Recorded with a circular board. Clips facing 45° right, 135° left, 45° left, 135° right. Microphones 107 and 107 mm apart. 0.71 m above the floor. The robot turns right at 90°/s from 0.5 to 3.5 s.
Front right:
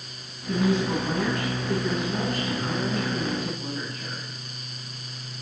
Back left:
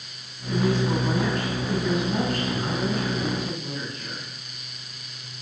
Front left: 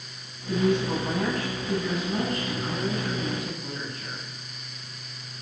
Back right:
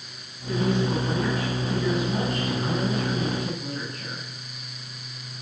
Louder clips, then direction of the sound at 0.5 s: Even, even; 5° right.